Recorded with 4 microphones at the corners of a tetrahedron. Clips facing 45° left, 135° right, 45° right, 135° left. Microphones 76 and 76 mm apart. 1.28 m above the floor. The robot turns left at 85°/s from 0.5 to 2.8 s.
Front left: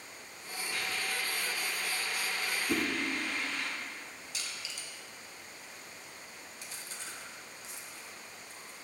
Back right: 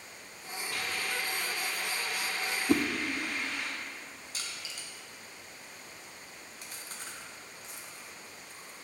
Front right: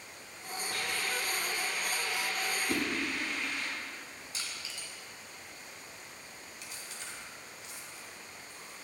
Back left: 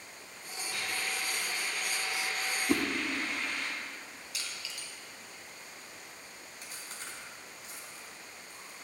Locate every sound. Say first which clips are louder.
0.7 s a hiss: back right 1 dB, front right 1 dB; 25° right, 3 m; by 3.7 s 155° left, 3 m
2.7 s a whoosh: back right 6 dB, back left 5 dB; 165° right, 0.7 m; by 2.8 s 175° right, 0.7 m
4.3 s crushing: back right 1 dB, even; 95° right, 1.9 m
6.6 s chewing: back right 1 dB, back left 1 dB; 175° right, 1.5 m